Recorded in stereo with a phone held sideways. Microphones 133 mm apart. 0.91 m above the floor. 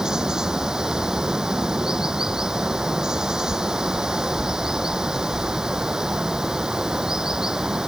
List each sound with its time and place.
0.0 s running water: 5° right (ahead or behind)